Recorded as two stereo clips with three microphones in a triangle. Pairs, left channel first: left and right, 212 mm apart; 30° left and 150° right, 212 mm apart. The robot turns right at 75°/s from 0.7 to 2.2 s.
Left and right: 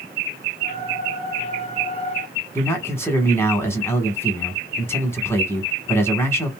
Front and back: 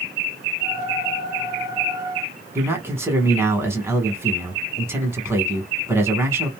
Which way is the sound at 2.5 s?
150° left.